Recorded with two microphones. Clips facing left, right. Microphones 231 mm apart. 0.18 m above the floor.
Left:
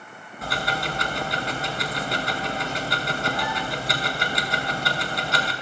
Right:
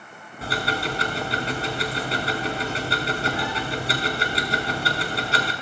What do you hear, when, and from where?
0.4 s ticking: 30° right (ahead or behind), 1.3 m